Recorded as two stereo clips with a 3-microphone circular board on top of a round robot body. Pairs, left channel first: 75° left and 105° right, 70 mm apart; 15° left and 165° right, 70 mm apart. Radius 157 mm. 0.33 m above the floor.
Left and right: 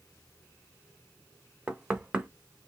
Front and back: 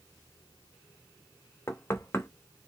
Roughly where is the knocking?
Ahead right.